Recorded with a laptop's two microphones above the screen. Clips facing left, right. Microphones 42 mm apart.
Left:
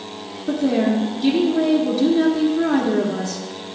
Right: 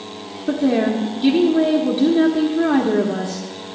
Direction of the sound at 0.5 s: 20° right (ahead or behind).